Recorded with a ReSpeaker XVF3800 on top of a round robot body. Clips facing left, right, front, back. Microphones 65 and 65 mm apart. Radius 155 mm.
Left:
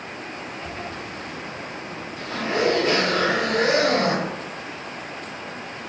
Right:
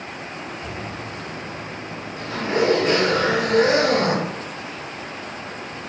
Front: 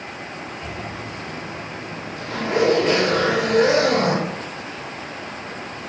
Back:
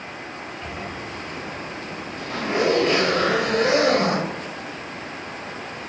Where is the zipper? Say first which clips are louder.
Right 1 dB, front 1 dB; 25° right, 1.1 m.